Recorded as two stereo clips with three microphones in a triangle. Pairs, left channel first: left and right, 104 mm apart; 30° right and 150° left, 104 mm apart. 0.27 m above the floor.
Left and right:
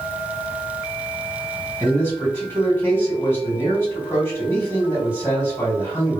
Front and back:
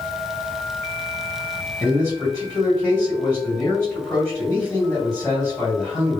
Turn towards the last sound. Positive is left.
turn(degrees=35)